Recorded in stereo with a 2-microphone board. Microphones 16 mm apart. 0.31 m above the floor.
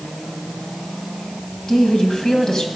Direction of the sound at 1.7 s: 45° left (ahead or behind).